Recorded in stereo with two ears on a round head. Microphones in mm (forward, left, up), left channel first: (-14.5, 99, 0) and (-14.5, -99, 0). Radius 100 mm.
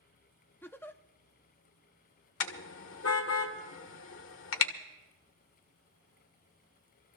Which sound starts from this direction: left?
A car horn, at 2.4 s.